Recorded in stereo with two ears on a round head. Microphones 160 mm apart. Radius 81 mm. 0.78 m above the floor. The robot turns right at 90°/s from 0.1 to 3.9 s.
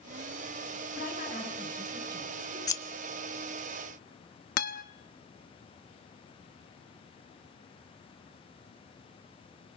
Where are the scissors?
20° left (ahead or behind), 1.2 m; by 2.8 s 15° left (ahead or behind), 1.2 m.